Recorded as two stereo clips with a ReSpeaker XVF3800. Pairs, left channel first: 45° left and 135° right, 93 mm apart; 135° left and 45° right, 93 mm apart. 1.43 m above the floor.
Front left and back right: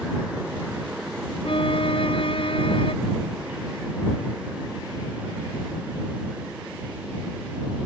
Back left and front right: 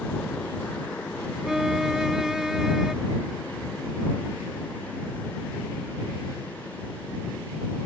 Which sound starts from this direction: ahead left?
A violin, at 1.4 s.